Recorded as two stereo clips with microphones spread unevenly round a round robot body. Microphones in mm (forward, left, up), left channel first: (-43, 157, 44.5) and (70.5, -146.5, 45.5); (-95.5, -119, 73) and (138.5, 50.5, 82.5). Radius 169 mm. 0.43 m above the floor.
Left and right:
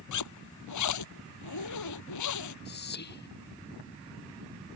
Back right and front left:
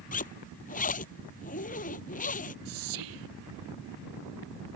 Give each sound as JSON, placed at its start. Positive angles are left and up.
{"t": 0.1, "sound": "a zipper", "azimuth_deg": 150}
{"t": 2.6, "sound": "whispering", "azimuth_deg": 50}